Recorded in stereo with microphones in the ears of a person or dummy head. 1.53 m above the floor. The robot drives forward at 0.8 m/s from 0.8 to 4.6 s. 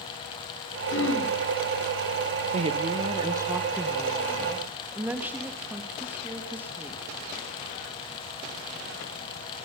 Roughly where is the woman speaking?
Right.